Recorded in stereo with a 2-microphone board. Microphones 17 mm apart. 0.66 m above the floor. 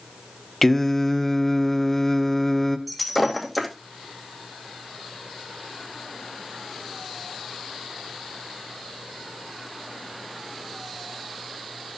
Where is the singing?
10° left (ahead or behind), 1.1 m.